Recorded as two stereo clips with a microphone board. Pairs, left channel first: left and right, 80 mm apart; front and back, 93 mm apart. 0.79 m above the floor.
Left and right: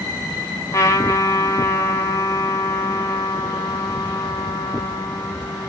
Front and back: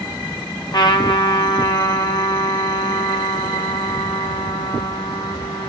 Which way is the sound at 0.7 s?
40° left.